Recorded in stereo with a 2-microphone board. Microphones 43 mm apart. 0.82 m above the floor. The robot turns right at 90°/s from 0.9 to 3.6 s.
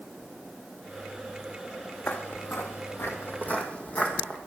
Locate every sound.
2.1 s footsteps: 30° left (ahead or behind), 1.5 m; by 4.4 s 35° left (ahead or behind), 2.5 m